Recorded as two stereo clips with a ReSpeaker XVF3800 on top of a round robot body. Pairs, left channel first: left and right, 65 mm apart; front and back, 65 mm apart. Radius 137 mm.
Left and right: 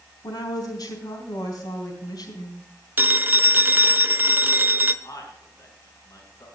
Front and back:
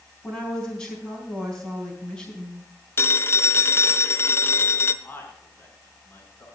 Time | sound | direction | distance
0.2 | a woman speaking | 80° left | 4 m
3.0 | a phone ringing | 40° right | 1.1 m
5.0 | a man speaking | 60° left | 5 m